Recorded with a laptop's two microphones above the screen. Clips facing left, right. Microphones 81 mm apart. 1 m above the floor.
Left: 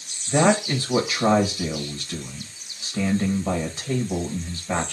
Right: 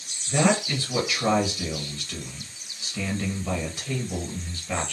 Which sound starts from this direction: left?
A man speaking, at 0.3 s.